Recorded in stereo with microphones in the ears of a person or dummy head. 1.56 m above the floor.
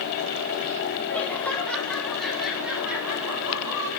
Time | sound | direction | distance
1.1 | laughter | 15° left (ahead or behind) | 3.5 m